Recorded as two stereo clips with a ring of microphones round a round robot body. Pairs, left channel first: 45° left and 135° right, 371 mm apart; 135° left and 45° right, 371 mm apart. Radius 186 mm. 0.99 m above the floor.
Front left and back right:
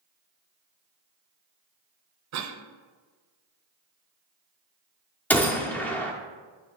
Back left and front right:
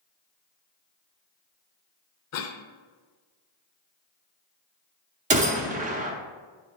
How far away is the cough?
About 0.6 m.